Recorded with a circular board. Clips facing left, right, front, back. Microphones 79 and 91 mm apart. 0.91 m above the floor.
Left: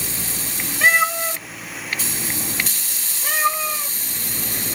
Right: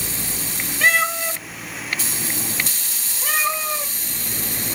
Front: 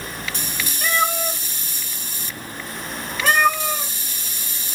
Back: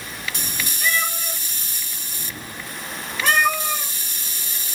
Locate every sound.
0.8 s a cat meowing: 20° left, 0.7 m; by 3.9 s 90° right, 1.8 m